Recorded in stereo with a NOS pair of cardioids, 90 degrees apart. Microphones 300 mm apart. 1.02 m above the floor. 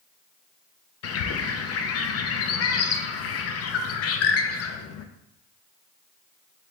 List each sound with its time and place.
1.0 s a bird: 55° left, 0.5 m